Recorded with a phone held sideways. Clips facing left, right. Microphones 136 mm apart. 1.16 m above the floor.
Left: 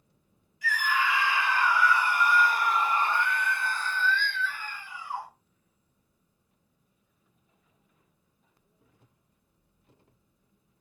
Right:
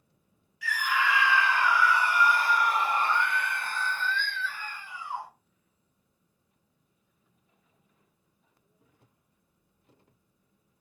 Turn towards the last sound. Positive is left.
turn(degrees=-20)  # may be behind; listen again after turning